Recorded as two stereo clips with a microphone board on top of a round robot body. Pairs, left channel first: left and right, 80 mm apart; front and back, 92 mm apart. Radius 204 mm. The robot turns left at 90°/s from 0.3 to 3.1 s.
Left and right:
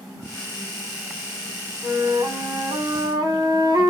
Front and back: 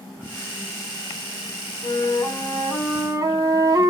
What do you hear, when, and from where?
1.8 s a flute: 15° right, 1.6 m; by 3.9 s 130° right, 1.6 m